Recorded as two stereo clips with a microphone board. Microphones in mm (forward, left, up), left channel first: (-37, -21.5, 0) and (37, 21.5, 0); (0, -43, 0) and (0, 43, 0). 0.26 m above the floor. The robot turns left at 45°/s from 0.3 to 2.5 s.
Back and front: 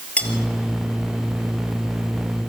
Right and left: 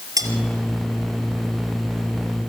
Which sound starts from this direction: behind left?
Cutlery clinking, at 0.2 s.